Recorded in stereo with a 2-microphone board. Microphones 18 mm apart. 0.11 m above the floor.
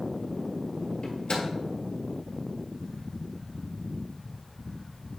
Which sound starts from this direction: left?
A microwave, at 1.0 s.